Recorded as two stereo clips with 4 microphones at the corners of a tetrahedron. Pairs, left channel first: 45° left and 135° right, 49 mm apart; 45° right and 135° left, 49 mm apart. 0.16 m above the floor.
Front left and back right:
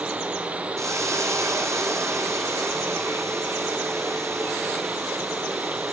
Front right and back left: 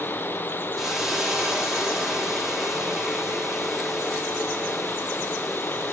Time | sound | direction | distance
0.8 | a hiss | 140° right | 7 m